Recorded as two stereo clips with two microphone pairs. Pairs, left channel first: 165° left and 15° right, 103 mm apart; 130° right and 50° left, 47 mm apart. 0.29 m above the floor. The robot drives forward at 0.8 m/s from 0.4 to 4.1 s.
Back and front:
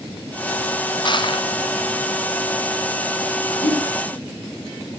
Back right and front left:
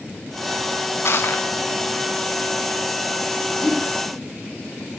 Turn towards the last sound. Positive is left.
turn(degrees=135)